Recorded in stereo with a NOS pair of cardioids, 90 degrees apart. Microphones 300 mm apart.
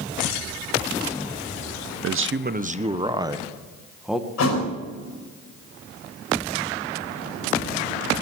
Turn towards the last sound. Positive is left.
turn(degrees=60)